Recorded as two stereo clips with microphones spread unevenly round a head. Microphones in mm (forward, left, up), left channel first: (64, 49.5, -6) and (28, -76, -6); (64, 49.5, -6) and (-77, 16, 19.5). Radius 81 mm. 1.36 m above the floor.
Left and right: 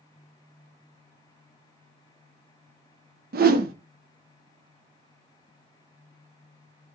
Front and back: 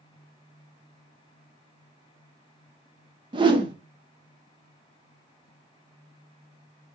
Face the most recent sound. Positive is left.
turn(degrees=-105)